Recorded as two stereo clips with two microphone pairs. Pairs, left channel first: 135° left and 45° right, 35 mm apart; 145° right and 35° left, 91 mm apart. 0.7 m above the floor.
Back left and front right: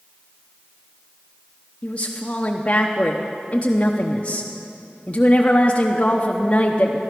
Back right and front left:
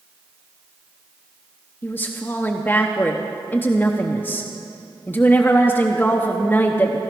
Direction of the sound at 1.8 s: 160° left.